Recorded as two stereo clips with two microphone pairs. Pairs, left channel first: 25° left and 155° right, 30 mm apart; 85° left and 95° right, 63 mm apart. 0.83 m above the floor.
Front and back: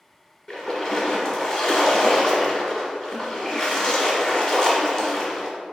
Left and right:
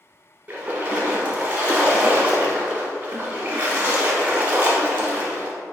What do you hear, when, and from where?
0.5 s a splash: 35° right, 1.0 m